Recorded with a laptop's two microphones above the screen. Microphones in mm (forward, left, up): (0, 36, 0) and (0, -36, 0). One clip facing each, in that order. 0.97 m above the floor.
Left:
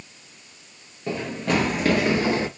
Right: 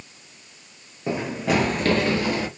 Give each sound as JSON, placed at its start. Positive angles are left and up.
{"t": 1.1, "sound": "running footsteps", "side_deg": -20, "distance_m": 1.2}